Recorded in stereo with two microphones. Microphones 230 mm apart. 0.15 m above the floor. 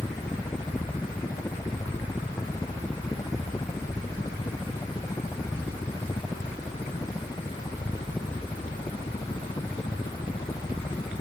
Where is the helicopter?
10° left (ahead or behind); by 11.2 s 20° left (ahead or behind).